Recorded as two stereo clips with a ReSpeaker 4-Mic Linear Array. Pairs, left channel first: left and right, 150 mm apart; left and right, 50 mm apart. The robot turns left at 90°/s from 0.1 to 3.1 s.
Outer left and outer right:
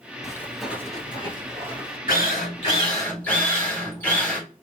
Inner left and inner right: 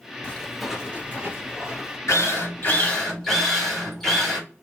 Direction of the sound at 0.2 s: 20° left (ahead or behind).